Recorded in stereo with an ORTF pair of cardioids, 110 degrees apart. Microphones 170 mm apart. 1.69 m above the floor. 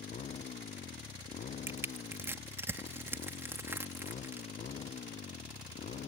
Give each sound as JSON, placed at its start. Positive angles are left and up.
{"t": 0.0, "sound": "a motorcycle", "azimuth_deg": 45}
{"t": 1.7, "sound": "crushing", "azimuth_deg": -15}